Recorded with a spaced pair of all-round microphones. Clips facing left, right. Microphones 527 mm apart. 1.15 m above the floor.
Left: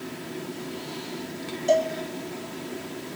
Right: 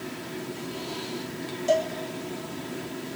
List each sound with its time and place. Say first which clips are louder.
1.7 s a cowbell: left 2 dB; 30° right (ahead or behind), 1.2 m